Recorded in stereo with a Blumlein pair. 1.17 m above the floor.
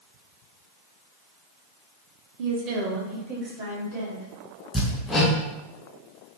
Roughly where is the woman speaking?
Ahead right.